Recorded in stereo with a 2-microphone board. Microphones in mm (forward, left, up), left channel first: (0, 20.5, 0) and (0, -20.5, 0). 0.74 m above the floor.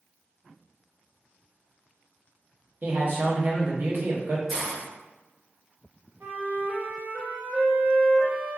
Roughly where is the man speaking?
Right.